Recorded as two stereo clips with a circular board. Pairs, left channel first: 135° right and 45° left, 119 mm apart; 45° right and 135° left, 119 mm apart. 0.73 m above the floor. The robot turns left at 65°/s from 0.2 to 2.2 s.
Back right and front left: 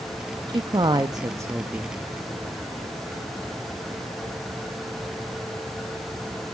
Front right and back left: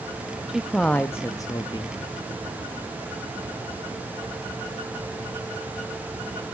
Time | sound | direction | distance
0.5 | a man speaking | 55° left | 0.6 m